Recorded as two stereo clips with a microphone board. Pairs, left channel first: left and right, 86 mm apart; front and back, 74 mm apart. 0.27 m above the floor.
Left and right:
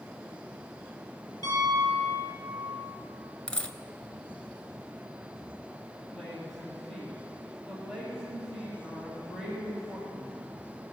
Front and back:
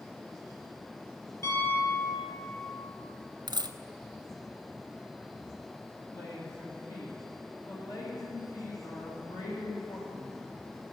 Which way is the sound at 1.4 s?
45° left.